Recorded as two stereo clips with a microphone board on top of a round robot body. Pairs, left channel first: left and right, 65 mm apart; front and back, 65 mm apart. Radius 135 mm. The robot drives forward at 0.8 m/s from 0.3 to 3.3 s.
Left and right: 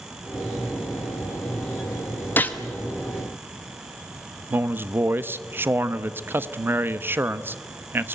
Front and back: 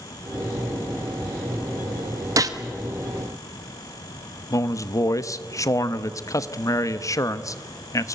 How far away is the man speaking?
About 1.1 m.